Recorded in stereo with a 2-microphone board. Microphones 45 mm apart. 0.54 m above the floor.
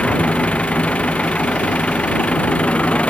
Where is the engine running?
30° left (ahead or behind).